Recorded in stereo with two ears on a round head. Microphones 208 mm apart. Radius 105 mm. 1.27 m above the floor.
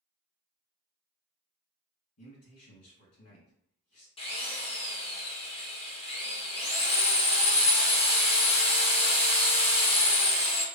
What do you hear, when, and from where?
2.2 s a man speaking: 75° left (ahead or behind), 1.8 m
4.2 s a drill: 25° left (ahead or behind), 0.7 m